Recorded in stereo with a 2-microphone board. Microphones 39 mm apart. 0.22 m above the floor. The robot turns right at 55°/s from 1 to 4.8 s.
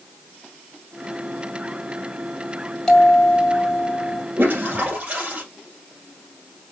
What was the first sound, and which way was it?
A bell, 10° left.